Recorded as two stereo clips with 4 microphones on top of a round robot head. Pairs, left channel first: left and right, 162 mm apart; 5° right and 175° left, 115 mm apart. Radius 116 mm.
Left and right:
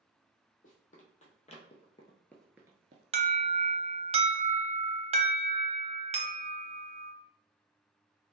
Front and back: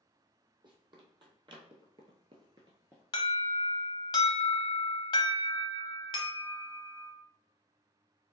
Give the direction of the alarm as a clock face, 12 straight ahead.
2 o'clock.